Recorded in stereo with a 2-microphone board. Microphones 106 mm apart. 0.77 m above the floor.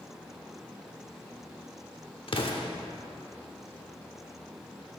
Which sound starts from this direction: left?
An explosion, at 2.3 s.